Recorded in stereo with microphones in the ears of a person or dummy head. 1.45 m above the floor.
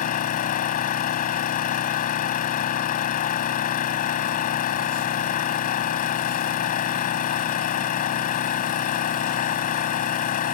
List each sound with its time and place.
0.0 s an engine running: 45° left (ahead or behind)